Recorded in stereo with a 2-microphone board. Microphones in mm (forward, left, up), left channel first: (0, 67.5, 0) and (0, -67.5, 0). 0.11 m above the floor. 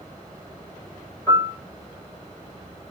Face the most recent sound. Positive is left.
turn(degrees=25)  # may be behind; listen again after turning